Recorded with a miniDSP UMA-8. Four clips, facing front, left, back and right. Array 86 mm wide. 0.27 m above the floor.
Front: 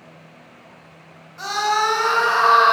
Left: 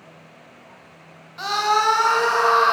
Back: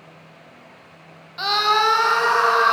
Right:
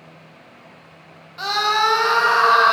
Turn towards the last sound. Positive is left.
turn(degrees=-55)